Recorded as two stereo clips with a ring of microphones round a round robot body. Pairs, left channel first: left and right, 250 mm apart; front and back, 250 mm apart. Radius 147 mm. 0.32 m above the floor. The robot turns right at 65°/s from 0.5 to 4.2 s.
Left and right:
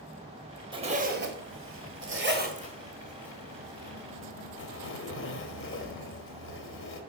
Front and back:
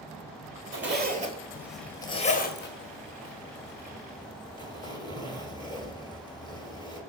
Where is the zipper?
155° right, 1.6 m; by 7.0 s 70° left, 1.6 m.